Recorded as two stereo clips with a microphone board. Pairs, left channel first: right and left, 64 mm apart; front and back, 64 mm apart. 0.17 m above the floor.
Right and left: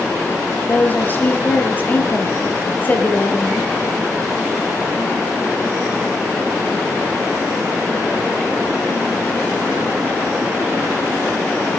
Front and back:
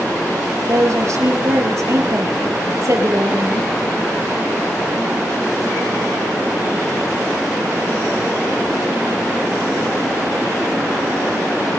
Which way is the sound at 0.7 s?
145° right.